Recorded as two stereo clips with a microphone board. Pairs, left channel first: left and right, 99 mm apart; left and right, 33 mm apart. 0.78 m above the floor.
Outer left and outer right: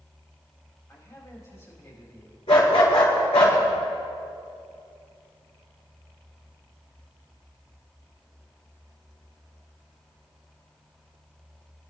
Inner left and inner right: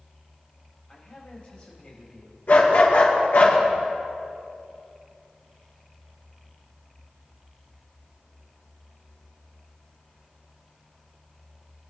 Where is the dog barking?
85° left, 5 m.